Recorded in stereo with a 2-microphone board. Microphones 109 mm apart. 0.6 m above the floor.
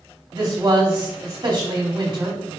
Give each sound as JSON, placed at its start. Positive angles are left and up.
{"t": 0.3, "sound": "a man speaking", "side_deg": -40, "distance_m": 1.5}